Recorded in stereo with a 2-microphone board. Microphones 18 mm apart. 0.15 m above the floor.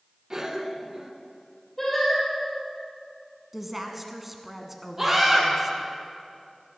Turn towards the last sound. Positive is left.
turn(degrees=-20)  # may be behind; listen again after turning